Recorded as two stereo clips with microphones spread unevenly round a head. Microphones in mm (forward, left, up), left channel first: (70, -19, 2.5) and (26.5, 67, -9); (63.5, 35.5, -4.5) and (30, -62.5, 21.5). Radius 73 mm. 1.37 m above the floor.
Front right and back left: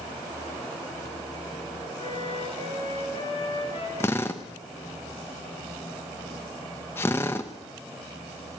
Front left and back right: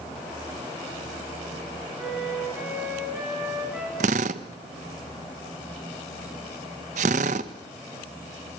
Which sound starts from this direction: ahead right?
A flute, at 2.0 s.